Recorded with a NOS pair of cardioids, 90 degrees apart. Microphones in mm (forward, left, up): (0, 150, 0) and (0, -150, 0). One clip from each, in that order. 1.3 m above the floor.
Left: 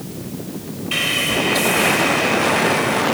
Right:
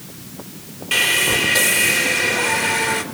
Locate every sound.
0.9 s sawing: 55° right, 3 m